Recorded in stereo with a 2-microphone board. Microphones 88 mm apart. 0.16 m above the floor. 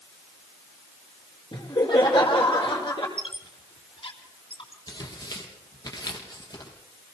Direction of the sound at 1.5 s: 60° left (ahead or behind).